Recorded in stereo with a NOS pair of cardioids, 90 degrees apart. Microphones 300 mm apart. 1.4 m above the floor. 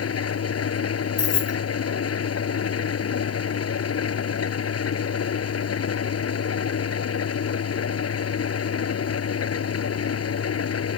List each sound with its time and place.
0.0 s an engine running: 50° left
1.2 s keys jangling: 55° left